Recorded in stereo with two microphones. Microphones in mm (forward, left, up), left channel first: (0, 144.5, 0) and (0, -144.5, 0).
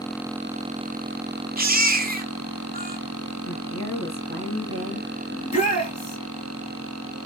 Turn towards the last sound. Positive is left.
turn(degrees=25)  # may be behind; listen again after turning